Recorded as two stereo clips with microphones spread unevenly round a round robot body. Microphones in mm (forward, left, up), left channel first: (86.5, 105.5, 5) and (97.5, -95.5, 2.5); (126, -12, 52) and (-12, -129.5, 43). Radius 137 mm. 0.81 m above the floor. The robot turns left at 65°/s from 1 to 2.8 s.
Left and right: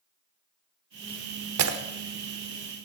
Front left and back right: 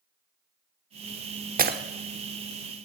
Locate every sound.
1.6 s breaking glass: 100° right, 1.1 m; by 1.8 s 110° right, 1.1 m